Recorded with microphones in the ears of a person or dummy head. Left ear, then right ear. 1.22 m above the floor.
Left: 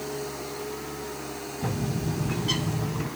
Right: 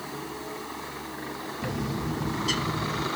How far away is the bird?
About 3 m.